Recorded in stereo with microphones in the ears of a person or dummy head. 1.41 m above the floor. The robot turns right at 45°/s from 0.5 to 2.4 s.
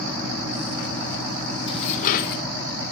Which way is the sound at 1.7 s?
35° left.